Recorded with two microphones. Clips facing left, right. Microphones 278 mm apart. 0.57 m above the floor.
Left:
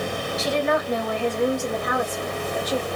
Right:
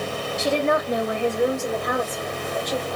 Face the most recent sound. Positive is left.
turn(degrees=25)  # may be behind; listen again after turning